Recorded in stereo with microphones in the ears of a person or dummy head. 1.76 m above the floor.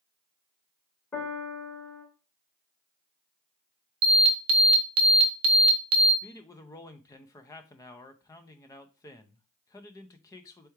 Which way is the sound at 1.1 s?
15° left (ahead or behind).